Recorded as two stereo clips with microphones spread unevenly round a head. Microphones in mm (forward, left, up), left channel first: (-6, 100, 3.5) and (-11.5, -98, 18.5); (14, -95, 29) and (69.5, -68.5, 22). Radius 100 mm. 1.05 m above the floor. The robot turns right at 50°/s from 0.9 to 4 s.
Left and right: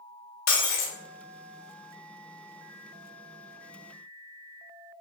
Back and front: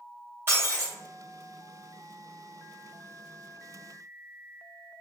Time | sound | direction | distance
0.5 | breaking glass | 90° left | 0.6 m